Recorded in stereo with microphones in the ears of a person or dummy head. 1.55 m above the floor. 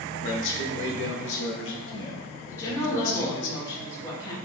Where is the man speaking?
65° left (ahead or behind), 0.6 m.